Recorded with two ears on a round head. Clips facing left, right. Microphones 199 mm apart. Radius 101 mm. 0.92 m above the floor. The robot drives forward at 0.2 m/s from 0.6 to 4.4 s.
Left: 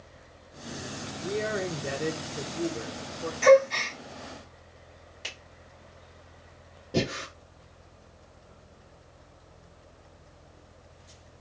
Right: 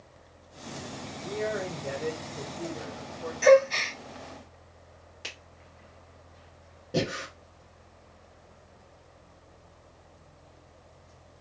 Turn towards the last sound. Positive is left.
turn(degrees=-5)  # may be behind; listen again after turning